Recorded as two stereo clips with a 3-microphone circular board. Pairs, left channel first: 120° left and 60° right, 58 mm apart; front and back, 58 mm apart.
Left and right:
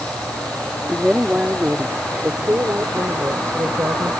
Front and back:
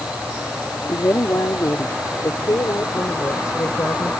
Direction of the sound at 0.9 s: 15° left.